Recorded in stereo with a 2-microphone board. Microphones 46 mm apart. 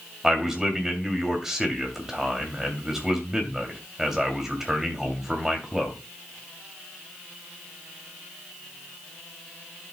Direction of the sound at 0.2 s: 10° right (ahead or behind).